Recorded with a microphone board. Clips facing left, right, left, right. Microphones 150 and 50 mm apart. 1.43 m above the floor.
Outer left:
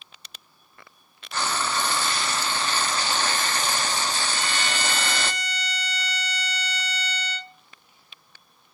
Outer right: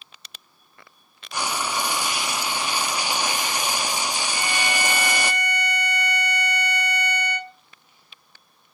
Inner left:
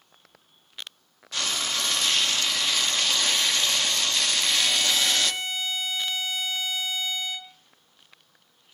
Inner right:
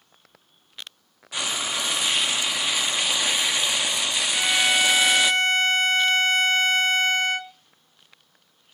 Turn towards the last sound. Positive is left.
turn(degrees=-55)  # may be behind; listen again after turning